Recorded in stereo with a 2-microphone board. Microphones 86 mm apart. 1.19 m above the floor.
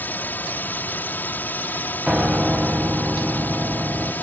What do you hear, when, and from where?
0.0 s a drone: 20° left (ahead or behind)
2.1 s a piano: 10° right (ahead or behind)